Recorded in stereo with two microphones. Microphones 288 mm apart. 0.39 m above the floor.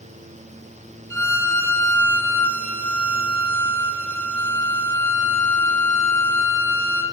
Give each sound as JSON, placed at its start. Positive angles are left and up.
{"t": 1.1, "sound": "a violin", "side_deg": 80, "distance_m": 1.6}